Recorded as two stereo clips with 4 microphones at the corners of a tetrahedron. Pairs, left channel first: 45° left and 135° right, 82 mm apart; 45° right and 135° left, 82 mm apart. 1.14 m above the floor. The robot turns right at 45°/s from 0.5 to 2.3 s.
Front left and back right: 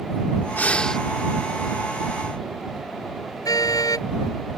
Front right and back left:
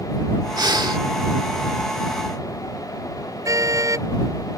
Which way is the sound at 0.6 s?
110° left.